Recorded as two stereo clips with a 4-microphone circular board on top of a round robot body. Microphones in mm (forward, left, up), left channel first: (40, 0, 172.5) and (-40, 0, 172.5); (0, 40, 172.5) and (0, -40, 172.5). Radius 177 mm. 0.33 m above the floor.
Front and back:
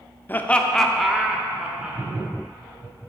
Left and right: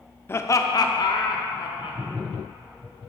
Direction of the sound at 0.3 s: 50° left.